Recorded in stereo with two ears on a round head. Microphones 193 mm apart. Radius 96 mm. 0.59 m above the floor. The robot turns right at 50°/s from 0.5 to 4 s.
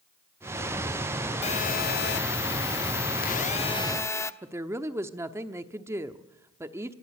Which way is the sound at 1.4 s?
35° left.